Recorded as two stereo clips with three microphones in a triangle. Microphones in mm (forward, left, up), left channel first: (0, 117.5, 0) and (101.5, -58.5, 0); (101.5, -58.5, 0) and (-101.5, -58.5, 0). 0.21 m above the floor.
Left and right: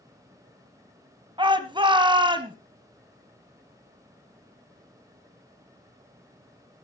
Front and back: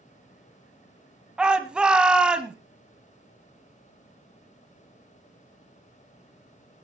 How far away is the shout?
About 1.4 m.